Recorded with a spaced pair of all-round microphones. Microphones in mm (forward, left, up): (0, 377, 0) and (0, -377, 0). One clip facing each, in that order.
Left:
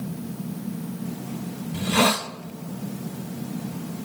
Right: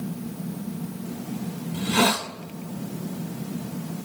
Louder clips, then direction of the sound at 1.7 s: Left 1 dB; 15° left (ahead or behind).